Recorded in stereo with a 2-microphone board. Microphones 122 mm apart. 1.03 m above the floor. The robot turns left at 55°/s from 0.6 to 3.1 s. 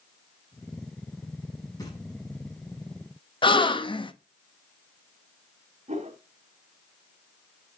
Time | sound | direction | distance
1.8 | knocking | 30° left (ahead or behind) | 5.5 m
3.4 | a gasp | 45° left (ahead or behind) | 0.8 m
5.9 | a whoosh | 70° right (ahead or behind) | 2.5 m